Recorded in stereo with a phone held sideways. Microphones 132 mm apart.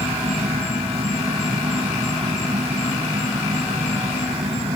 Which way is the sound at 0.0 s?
45° right (ahead or behind).